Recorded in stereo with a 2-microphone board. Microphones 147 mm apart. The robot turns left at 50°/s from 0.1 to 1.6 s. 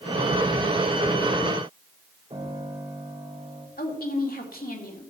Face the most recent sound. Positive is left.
turn(degrees=85)